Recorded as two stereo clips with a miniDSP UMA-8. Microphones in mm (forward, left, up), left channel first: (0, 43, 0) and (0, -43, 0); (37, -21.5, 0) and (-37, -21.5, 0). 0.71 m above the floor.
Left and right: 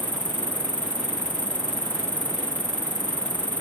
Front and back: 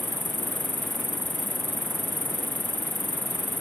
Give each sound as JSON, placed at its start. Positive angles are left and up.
{"t": 0.0, "sound": "an insect", "azimuth_deg": -65}